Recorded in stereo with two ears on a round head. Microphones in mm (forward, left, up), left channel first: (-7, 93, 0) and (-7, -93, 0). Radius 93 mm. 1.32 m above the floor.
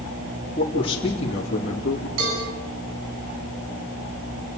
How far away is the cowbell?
About 8.5 m.